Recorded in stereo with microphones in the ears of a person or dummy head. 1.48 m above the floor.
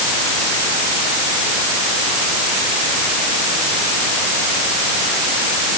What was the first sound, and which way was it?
Only background noise.